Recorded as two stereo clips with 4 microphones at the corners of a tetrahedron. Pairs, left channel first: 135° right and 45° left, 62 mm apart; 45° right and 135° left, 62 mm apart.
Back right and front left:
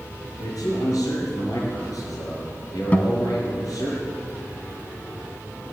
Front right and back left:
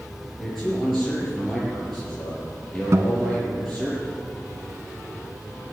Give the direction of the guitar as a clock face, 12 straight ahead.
7 o'clock.